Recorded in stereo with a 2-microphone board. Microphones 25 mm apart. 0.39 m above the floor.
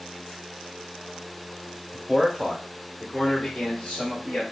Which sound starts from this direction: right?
A man speaking, at 1.9 s.